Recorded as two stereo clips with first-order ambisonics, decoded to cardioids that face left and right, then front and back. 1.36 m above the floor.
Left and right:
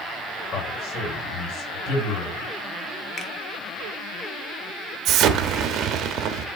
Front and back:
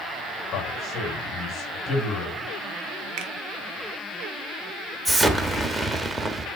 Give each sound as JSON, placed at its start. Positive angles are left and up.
{"t": 0.5, "sound": "a man speaking", "azimuth_deg": 65, "distance_m": 7.5}
{"t": 3.2, "sound": "a finger snap", "azimuth_deg": 155, "distance_m": 1.1}
{"t": 5.0, "sound": "an explosion", "azimuth_deg": -105, "distance_m": 1.0}